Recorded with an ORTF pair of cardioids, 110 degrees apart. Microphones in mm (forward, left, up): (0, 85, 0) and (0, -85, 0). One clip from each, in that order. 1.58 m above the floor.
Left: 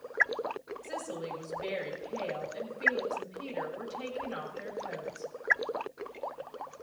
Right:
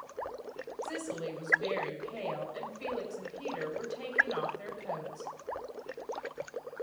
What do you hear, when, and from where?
0.8 s a woman speaking: 10° right, 6.5 m